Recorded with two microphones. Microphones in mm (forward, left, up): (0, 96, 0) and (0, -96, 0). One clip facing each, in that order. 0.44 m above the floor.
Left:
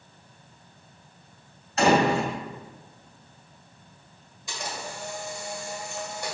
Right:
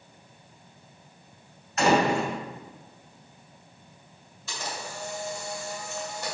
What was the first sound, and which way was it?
A door slam, 35° left (ahead or behind).